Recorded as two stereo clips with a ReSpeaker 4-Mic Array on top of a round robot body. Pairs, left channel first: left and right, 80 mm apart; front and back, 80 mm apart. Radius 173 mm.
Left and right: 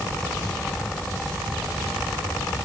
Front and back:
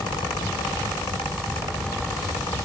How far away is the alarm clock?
I don't hear an alarm clock.